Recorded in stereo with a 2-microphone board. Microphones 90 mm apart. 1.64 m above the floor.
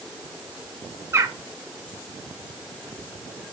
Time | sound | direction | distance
1.1 | a bird | 30° right (ahead or behind) | 0.9 m